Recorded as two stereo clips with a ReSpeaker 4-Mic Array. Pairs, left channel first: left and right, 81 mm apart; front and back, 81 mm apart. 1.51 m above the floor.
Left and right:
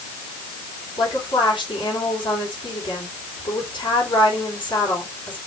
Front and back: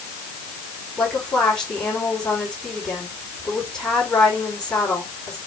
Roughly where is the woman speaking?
Left.